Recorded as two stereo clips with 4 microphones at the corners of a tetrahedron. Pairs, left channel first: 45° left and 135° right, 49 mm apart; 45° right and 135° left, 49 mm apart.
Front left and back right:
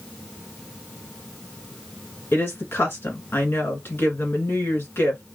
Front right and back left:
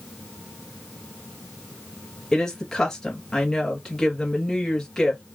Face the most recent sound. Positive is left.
turn(degrees=30)